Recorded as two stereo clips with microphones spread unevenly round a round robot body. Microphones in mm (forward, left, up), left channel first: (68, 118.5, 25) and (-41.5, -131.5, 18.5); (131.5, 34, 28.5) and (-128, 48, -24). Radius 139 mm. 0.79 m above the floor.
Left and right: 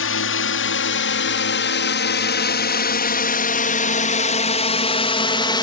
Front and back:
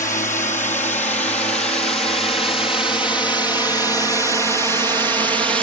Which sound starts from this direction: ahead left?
A drone, at 0.0 s.